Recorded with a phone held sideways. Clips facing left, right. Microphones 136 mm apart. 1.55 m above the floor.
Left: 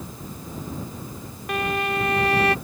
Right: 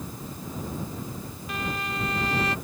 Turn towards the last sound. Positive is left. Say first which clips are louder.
# left 8 dB
turn(degrees=60)  # may be behind; listen again after turning